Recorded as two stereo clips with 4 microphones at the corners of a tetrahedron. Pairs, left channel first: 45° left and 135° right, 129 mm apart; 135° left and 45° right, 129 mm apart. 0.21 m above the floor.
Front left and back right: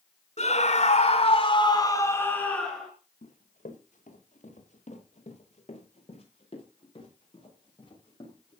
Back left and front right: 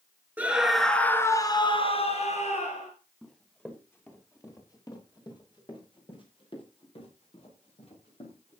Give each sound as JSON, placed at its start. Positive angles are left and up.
{"t": 0.4, "sound": "a scream", "azimuth_deg": 30, "distance_m": 2.5}
{"t": 3.2, "sound": "running footsteps", "azimuth_deg": 50, "distance_m": 4.5}